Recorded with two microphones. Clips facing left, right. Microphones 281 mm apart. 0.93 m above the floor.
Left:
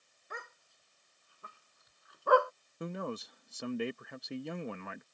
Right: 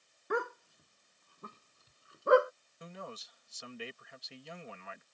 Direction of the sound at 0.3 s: 75° right (ahead or behind).